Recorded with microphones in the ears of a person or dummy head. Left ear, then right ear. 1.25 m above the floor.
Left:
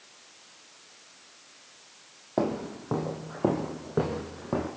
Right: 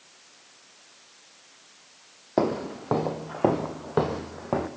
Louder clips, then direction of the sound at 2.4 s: Right 4 dB; 30° right (ahead or behind).